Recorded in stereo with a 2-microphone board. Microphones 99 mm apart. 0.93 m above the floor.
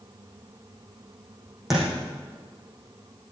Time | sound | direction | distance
1.7 | a thud | 5° right (ahead or behind) | 6.5 m